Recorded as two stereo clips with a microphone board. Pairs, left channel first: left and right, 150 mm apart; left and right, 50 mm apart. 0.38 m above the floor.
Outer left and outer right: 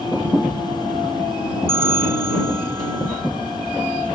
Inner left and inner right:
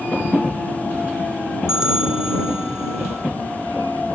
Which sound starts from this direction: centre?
A bell, at 1.7 s.